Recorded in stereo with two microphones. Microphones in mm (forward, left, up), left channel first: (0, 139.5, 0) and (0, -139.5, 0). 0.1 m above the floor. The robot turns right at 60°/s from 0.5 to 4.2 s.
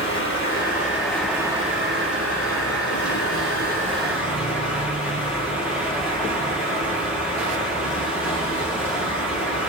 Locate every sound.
0.0 s running water: 135° left, 1.7 m; by 9.7 s 5° right, 1.7 m